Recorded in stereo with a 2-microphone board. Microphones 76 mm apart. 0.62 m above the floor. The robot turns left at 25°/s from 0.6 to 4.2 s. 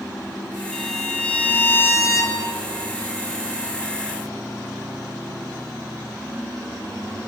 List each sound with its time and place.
0.7 s a violin: straight behind, 5.5 m; by 2.7 s 130° left, 5.5 m